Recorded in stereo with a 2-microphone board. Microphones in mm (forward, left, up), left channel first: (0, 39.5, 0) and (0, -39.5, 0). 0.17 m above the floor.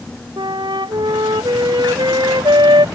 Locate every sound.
0.4 s a flute: 80° right